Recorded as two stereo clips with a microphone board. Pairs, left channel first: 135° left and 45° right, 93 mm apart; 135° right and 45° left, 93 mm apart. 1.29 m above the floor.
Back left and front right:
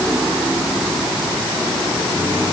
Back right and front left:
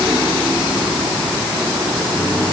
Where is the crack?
No crack in this recording.